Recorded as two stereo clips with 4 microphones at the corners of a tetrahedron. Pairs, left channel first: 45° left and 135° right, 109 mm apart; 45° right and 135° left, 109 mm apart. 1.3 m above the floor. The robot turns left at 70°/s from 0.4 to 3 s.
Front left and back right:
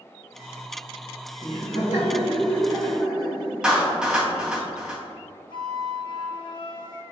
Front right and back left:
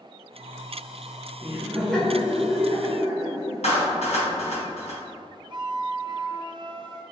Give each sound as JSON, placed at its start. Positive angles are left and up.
{"t": 1.4, "sound": "laughter", "azimuth_deg": 75, "distance_m": 1.6}
{"t": 3.6, "sound": "a clap", "azimuth_deg": -50, "distance_m": 1.1}
{"t": 5.5, "sound": "a flute", "azimuth_deg": 90, "distance_m": 0.5}